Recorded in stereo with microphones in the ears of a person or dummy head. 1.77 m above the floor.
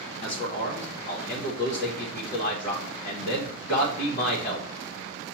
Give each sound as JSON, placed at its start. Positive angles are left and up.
{"t": 0.2, "sound": "a man speaking", "side_deg": 45, "distance_m": 0.9}